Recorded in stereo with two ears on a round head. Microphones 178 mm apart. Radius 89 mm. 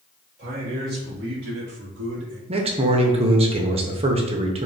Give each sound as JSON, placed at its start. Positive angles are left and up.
{"t": 0.4, "sound": "a man speaking", "side_deg": -40, "distance_m": 1.5}
{"t": 2.5, "sound": "a man speaking", "side_deg": -30, "distance_m": 0.6}